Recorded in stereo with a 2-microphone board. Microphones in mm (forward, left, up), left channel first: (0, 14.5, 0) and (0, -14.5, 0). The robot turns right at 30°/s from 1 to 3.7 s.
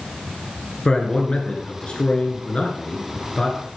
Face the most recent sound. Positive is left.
turn(degrees=140)